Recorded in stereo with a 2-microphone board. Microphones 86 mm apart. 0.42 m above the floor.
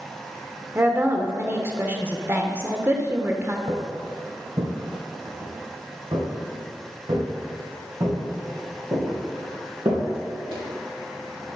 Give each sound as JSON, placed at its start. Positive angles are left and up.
{"t": 0.8, "sound": "a woman speaking", "side_deg": -25, "distance_m": 0.9}
{"t": 3.7, "sound": "footsteps", "side_deg": -60, "distance_m": 1.6}